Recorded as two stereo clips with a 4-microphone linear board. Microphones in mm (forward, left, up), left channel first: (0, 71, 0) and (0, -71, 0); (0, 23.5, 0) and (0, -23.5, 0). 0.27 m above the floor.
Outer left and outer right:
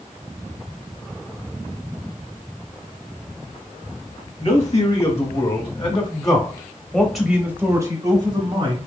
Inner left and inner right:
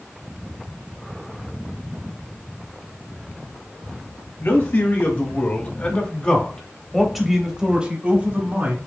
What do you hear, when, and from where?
4.4 s a man speaking: 55° left (ahead or behind), 1.7 m; by 8.8 s 40° right (ahead or behind), 1.3 m